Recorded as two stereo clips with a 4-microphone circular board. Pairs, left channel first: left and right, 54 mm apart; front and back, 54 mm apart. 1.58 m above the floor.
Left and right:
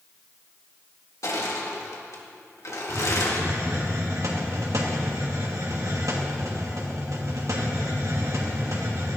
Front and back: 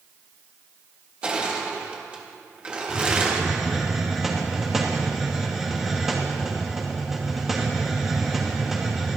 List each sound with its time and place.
1.2 s crushing: 110° left, 2 m
2.9 s a hiss: 95° right, 2 m